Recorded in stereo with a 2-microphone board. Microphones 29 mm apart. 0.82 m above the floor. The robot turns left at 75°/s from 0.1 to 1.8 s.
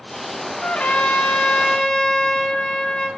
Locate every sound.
0.6 s a trumpet: 120° left, 1.9 m; by 3.1 s 30° left, 1.9 m